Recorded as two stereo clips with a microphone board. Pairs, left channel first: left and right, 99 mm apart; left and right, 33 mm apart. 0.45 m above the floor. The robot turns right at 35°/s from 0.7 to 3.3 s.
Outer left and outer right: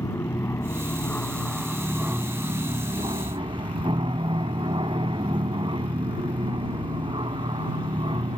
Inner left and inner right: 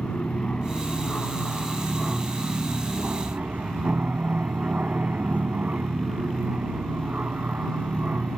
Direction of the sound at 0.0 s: 150° left.